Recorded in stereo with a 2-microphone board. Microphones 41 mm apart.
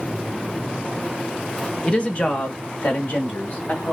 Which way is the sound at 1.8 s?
25° left (ahead or behind).